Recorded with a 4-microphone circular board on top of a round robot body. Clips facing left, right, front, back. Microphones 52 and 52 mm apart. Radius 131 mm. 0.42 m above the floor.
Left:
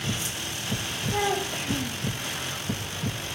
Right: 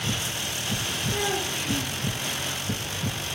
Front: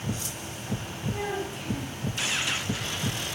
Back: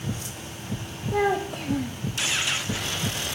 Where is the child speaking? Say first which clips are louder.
Left 3 dB, back 9 dB; 145° left, 1.7 m.